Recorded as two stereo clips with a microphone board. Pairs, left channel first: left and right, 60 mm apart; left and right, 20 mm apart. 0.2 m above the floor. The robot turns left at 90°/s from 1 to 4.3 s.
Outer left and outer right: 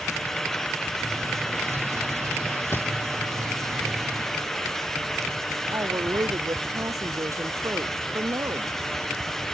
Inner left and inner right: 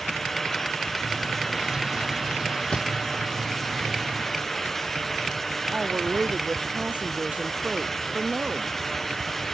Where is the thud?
40° left (ahead or behind); by 2.9 s 25° left (ahead or behind).